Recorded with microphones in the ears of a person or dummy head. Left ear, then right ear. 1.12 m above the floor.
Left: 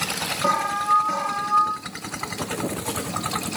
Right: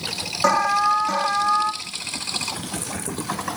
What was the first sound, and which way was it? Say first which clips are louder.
An alarm: right 4 dB; 50° right (ahead or behind).